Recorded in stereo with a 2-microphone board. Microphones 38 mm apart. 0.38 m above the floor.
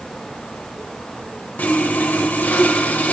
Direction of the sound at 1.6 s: 55° left (ahead or behind).